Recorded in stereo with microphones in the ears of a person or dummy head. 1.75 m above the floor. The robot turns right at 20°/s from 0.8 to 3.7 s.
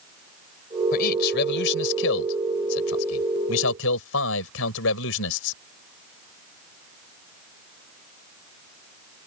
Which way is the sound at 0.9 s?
50° left.